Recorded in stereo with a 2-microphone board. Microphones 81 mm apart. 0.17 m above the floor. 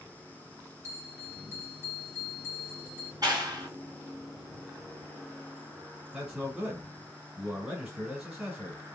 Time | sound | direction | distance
0.8 | a bell | 40° right (ahead or behind) | 2 m
3.2 | a clap | 55° right (ahead or behind) | 2.0 m
6.1 | a man speaking | 5° right (ahead or behind) | 2 m